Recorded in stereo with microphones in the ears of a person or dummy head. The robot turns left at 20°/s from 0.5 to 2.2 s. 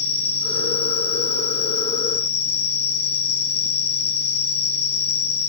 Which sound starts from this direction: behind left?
An insect, at 0.0 s.